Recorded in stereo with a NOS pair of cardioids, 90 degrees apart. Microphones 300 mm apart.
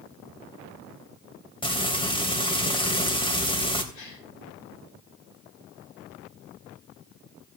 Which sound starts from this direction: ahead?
Frying, at 1.6 s.